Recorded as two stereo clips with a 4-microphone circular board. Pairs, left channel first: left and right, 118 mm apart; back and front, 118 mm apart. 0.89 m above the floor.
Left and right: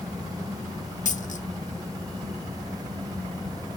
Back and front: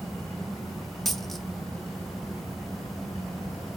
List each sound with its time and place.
1.1 s a dropped coin: 90° left, 0.6 m